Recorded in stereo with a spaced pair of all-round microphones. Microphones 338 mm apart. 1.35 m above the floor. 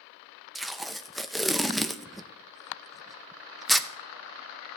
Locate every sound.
0.6 s tape being pulled: centre (ahead or behind), 0.5 m